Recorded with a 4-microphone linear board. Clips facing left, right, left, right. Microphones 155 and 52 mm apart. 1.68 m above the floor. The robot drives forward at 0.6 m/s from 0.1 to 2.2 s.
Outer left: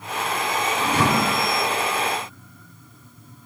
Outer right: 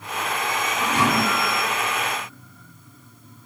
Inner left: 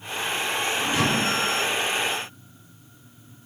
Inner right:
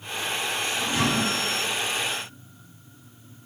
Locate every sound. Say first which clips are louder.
0.8 s a thud: even, even; 35° left (ahead or behind), 3 m; by 1.5 s 30° left (ahead or behind), 3.5 m